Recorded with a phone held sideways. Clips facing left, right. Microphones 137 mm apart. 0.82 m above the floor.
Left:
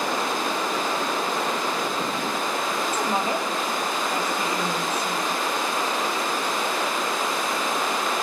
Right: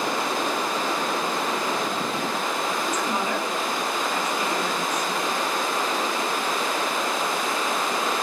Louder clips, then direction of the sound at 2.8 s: Left 1 dB; 30° left (ahead or behind).